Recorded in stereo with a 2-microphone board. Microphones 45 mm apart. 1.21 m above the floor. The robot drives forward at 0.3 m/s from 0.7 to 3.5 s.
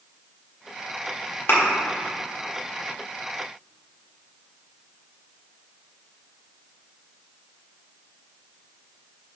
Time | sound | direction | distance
1.5 | a thud | 60° left (ahead or behind) | 1.3 m